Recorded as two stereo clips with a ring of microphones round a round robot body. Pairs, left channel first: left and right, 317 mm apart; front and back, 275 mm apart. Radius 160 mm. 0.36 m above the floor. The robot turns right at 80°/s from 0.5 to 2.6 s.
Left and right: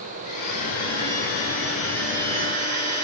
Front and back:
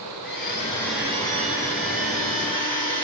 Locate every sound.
0.2 s a blender: 55° left, 2.5 m; by 3.0 s 140° right, 2.5 m